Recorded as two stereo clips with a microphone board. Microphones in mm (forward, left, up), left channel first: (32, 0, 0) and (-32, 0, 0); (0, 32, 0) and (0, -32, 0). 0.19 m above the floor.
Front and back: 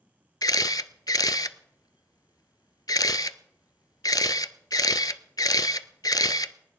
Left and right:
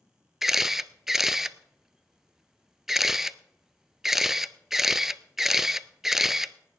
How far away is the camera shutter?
About 0.5 m.